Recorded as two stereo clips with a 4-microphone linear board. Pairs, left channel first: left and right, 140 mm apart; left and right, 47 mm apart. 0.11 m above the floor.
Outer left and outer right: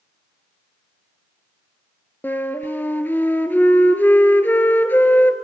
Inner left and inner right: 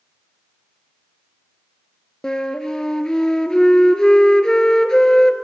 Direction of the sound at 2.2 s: 15° left (ahead or behind).